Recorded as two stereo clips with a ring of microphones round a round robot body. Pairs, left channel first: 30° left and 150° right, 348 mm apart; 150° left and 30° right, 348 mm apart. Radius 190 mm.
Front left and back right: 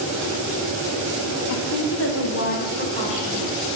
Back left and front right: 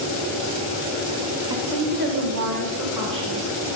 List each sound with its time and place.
1.5 s a woman speaking: 50° left, 1.6 m; by 3.4 s 45° right, 2.5 m